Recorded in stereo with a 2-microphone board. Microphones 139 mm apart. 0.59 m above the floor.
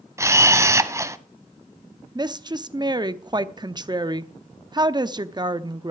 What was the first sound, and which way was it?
A camera shutter, 20° right (ahead or behind).